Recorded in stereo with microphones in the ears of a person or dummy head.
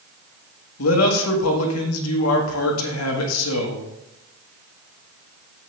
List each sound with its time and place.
0.8 s a man speaking: 80° left, 1.8 m